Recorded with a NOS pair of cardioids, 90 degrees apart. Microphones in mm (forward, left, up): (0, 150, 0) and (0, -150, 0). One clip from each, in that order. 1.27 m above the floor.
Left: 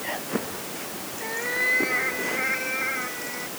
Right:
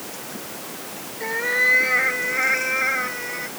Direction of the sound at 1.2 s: 40° right.